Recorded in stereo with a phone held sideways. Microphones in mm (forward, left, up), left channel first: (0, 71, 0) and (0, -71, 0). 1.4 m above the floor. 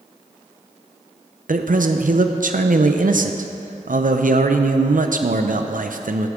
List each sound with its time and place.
1.5 s a man speaking: 70° right (ahead or behind), 0.6 m